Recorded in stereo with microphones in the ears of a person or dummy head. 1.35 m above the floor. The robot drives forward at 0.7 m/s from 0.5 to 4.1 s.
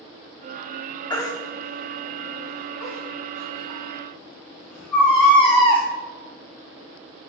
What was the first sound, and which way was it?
A baby crying, 20° left (ahead or behind).